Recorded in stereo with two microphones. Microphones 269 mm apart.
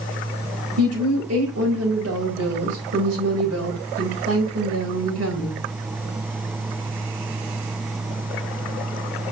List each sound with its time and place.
0.8 s a woman speaking: 70° right (ahead or behind), 4.5 m